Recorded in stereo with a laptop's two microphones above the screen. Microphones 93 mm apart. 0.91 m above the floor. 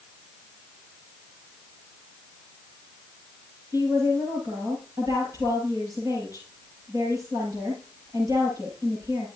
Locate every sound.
3.7 s a woman speaking: 40° right (ahead or behind), 7 m